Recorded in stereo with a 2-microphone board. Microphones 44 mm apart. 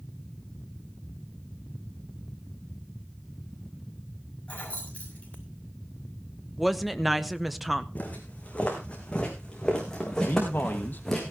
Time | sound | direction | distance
4.5 | keys jangling | 30° left (ahead or behind) | 6.5 m
6.6 | a woman speaking | centre (ahead or behind) | 0.9 m
8.0 | footsteps | 35° left (ahead or behind) | 4 m
10.2 | a man speaking | 50° left (ahead or behind) | 1.4 m